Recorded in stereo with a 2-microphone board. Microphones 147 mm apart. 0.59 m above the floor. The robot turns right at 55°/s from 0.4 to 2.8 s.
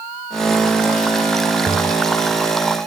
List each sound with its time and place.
1.7 s a toilet flushing: 10° left (ahead or behind), 2.5 m; by 1.8 s 5° left (ahead or behind), 2.5 m